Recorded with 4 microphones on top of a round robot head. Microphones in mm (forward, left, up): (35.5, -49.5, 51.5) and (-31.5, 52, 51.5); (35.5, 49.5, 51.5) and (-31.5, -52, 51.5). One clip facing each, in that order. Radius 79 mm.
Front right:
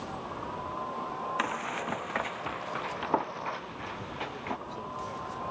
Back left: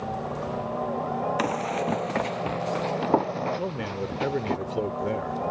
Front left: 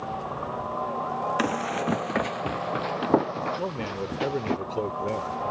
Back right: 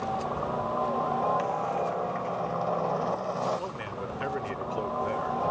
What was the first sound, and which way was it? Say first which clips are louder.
A helicopter: back left 7 dB, back right 2 dB; 160° left.